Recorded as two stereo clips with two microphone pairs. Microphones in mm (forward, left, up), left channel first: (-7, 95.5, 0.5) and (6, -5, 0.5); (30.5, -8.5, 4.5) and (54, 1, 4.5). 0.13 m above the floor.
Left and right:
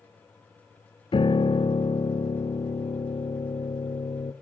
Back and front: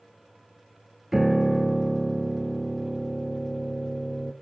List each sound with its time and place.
1.1 s a piano: 90° left, 1.0 m